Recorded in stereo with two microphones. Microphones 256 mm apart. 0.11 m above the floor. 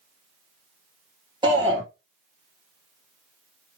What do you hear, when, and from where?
1.4 s a shout: 15° right (ahead or behind), 2.5 m